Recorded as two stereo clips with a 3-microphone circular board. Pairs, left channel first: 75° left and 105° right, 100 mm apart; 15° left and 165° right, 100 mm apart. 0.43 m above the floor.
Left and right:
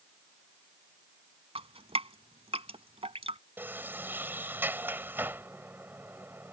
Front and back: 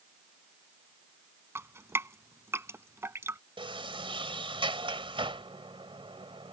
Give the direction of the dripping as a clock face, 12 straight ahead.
3 o'clock.